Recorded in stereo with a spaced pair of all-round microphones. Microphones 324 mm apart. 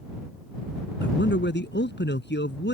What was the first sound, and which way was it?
A man speaking, 35° left (ahead or behind).